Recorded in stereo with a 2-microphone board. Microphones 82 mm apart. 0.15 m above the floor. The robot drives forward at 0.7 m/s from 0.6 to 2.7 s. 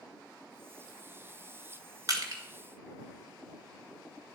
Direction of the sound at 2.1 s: 50° right (ahead or behind).